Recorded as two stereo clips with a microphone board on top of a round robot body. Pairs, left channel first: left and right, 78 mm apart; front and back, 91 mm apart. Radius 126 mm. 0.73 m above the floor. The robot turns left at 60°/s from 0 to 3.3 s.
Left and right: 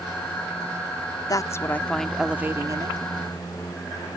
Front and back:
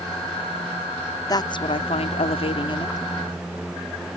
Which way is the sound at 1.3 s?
50° left.